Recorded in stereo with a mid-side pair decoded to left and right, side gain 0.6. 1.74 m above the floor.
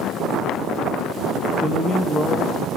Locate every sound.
1.6 s a man speaking: straight ahead, 1.2 m